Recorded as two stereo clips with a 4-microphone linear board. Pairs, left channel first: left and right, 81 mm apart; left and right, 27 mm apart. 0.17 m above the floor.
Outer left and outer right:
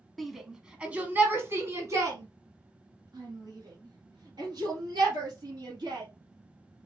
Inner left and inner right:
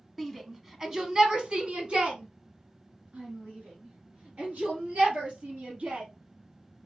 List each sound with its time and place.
0.2 s a shout: centre (ahead or behind), 1.2 m; by 6.1 s 65° right (ahead or behind), 3.5 m